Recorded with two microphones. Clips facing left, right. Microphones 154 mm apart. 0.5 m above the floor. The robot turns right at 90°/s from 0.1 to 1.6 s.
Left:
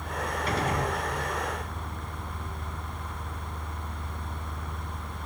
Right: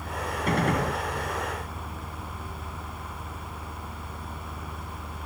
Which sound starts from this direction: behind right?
A gunshot, at 0.5 s.